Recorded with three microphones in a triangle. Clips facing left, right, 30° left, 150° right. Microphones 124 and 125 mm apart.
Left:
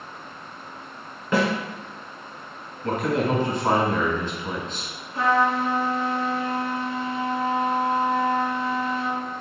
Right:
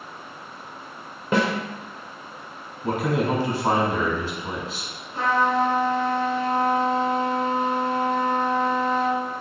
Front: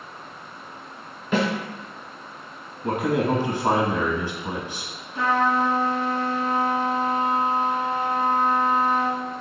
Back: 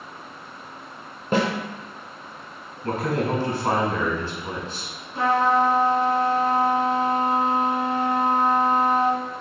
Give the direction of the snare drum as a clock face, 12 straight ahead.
5 o'clock.